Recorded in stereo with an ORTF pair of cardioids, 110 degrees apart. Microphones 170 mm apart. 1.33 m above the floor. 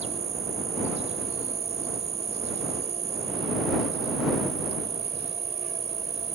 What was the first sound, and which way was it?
An insect, 40° right.